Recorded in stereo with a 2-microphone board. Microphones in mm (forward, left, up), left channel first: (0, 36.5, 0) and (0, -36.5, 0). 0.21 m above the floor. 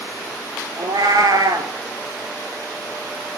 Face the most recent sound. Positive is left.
turn(degrees=-70)  # may be behind; listen again after turning